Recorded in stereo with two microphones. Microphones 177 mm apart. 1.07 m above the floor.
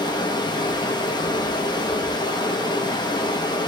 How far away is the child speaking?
No child speaking in this recording.